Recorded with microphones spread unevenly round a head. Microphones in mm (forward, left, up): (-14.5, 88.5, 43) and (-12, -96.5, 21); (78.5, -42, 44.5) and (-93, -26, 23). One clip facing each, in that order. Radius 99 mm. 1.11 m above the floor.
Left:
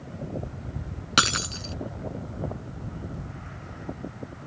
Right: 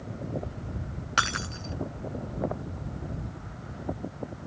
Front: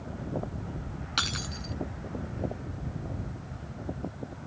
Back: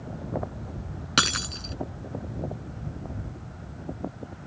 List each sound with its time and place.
1.2 s breaking glass: 135° left